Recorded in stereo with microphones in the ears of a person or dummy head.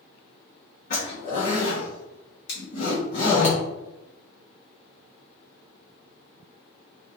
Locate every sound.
0.9 s a zipper: 50° left (ahead or behind), 1.1 m
2.5 s scissors: 70° left (ahead or behind), 1.7 m